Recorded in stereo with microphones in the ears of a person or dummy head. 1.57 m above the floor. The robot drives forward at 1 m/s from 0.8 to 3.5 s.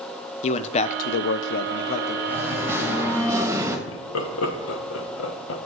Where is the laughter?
70° left (ahead or behind), 1.5 m.